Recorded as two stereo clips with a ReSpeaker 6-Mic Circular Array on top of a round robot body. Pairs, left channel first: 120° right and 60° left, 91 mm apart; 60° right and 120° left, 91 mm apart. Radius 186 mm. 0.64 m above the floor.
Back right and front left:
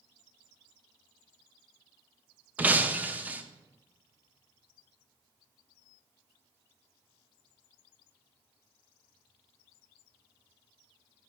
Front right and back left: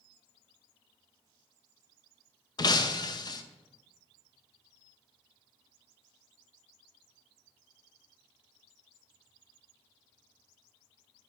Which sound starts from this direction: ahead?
Breaking glass, at 2.6 s.